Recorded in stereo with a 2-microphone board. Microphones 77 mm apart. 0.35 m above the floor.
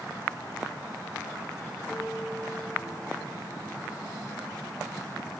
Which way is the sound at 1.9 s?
35° right (ahead or behind).